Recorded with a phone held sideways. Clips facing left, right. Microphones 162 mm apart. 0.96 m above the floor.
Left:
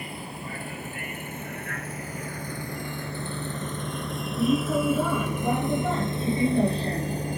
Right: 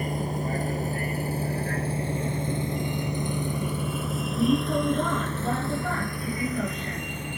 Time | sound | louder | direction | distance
0.0 | a vehicle | right 8 dB | 45° right (ahead or behind) | ?